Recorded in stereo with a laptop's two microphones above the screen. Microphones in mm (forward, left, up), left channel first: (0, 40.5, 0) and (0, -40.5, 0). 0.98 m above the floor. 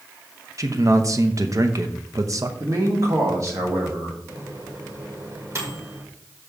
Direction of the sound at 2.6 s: 40° right (ahead or behind).